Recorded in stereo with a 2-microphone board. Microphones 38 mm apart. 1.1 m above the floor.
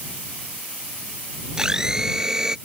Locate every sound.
1.6 s a blender: 20° right (ahead or behind)